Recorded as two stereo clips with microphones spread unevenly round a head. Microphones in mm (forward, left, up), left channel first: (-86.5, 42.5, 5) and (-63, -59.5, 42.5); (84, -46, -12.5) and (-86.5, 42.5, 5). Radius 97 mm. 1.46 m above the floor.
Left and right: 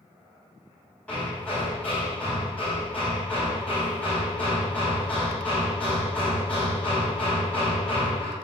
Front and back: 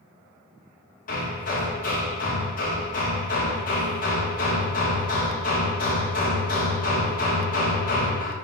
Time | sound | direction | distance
1.1 | hammering | 20° left | 3.5 m